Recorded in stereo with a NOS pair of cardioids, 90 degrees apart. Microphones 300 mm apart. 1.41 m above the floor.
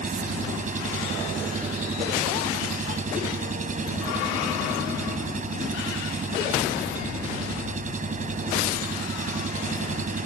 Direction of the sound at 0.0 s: 25° right.